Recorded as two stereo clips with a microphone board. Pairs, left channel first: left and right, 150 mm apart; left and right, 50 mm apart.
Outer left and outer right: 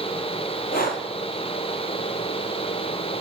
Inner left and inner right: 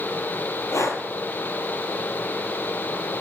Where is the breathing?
85° left, 1.2 m.